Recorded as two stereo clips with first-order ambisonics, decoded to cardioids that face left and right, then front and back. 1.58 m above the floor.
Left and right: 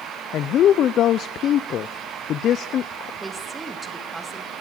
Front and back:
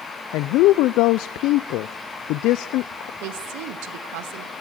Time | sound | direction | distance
0.3 | a woman speaking | 35° left | 0.6 m
3.2 | a woman speaking | 170° right | 2.5 m